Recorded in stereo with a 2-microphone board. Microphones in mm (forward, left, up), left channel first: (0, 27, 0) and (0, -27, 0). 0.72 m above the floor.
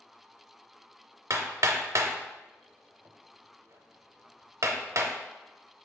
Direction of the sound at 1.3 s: 65° right (ahead or behind).